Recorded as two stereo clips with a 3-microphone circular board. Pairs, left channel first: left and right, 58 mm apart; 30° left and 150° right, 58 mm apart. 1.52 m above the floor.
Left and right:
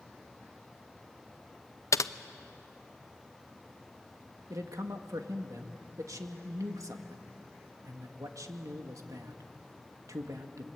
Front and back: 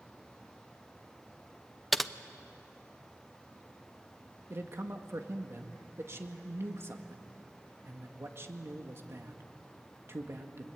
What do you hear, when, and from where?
1.9 s typing on a keyboard: 120° left, 0.6 m
4.5 s a man speaking: 105° right, 1.9 m